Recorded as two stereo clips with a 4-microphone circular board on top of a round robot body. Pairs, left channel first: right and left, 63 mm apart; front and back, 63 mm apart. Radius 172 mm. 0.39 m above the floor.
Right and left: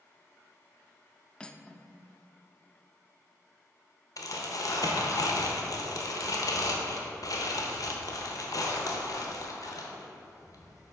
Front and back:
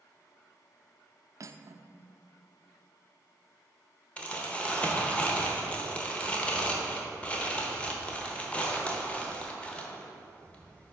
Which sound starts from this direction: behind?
Cutlery clinking, at 1.4 s.